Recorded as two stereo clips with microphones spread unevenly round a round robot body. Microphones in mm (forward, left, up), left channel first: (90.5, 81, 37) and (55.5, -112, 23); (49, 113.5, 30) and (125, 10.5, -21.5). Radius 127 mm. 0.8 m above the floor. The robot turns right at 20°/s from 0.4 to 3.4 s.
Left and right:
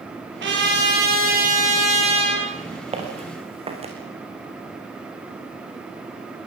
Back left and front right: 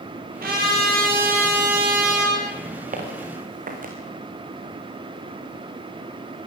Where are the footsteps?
40° right, 5.5 m.